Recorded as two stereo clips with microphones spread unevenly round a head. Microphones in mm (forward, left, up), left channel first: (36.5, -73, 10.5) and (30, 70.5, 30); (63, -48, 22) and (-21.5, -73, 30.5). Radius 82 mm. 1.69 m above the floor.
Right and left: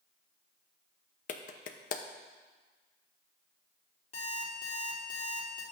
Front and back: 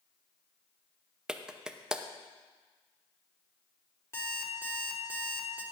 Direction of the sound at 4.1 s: 40° right.